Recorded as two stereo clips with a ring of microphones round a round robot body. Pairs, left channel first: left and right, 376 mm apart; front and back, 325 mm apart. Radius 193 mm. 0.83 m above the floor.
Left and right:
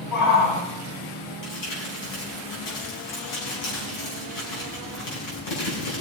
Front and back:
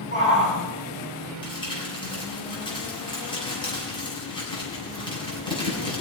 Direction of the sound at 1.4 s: 75° left.